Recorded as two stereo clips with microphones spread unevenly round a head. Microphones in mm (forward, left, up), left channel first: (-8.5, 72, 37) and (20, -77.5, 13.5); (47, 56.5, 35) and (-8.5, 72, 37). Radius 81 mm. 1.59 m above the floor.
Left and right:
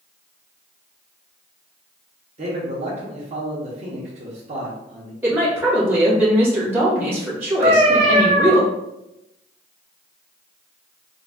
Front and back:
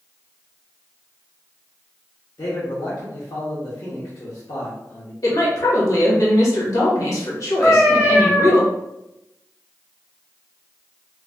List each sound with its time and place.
2.4 s a man speaking: 30° right, 0.9 m
5.2 s a woman speaking: straight ahead, 1.5 m
7.6 s a cat meowing: 65° right, 0.8 m